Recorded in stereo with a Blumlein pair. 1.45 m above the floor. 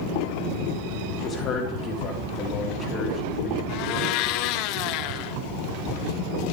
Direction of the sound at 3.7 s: 40° left.